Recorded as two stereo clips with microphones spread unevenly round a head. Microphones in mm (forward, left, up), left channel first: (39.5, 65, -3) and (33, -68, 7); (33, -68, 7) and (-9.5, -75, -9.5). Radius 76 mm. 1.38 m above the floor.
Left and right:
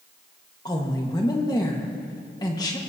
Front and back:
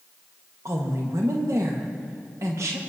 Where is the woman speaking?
155° left, 1.7 m.